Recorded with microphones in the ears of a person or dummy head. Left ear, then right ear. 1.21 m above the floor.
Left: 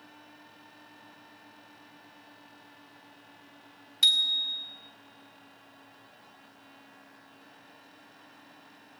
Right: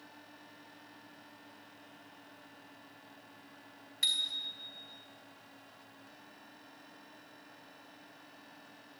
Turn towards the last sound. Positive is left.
turn(degrees=40)  # may be behind; listen again after turning